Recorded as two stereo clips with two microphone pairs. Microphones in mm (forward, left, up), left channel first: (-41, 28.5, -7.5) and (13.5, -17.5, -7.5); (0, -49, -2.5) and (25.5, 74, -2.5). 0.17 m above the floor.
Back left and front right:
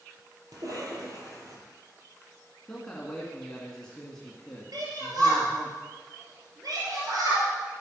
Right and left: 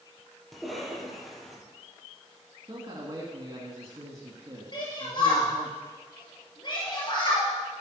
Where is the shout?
55° right, 3.5 m.